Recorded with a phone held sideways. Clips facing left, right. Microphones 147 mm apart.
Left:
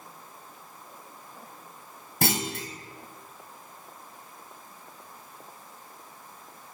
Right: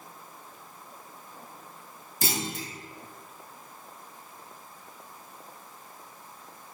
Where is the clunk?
70° left (ahead or behind), 2.5 m.